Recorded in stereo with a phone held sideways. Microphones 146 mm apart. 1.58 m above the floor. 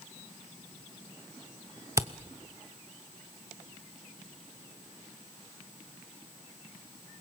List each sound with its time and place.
2.0 s a camera shutter: 20° right (ahead or behind), 0.9 m